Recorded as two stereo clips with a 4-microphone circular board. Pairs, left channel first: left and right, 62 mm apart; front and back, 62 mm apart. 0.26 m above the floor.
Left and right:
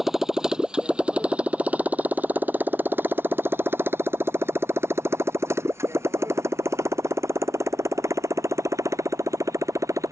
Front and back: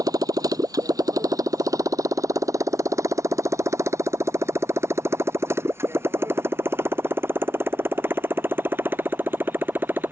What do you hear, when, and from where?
0.0 s a motorcycle: 175° right; by 10.1 s 120° right